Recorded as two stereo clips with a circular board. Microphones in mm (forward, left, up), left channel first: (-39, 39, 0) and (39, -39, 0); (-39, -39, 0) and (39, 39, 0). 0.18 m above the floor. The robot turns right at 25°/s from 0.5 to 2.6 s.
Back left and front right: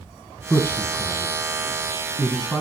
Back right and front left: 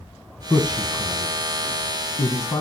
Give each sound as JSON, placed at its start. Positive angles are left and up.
{"t": 0.5, "sound": "a man speaking", "azimuth_deg": 175, "distance_m": 1.2}